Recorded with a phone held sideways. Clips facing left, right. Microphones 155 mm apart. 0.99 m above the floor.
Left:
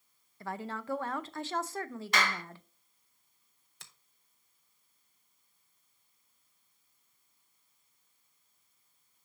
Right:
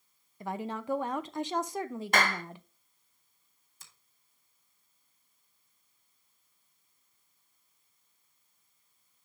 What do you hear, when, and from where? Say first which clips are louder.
0.4 s a woman speaking: right 3 dB; 15° right (ahead or behind), 0.6 m
2.1 s a clap: right 3 dB; 50° right (ahead or behind), 0.8 m
3.8 s a finger snap: left 2 dB; 75° left (ahead or behind), 1.0 m